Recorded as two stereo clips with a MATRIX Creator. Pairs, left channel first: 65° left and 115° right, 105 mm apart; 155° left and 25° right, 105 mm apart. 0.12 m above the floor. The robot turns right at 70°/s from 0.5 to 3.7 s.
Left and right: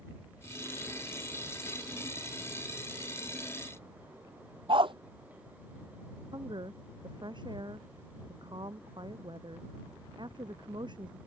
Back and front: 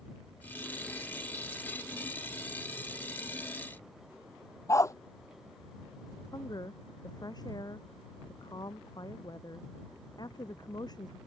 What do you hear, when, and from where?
4.7 s a dog barking: 145° right
6.3 s a woman speaking: 155° right